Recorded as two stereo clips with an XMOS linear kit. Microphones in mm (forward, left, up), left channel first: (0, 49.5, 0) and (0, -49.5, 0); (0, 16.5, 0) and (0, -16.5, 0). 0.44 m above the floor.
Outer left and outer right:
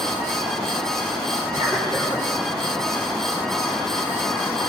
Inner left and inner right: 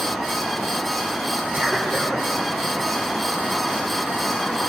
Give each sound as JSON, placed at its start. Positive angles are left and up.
{"t": 1.5, "sound": "a cough", "side_deg": -55, "distance_m": 3.0}